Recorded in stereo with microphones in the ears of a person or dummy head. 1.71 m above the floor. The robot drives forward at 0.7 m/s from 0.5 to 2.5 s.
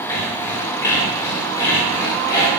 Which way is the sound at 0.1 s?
15° left (ahead or behind).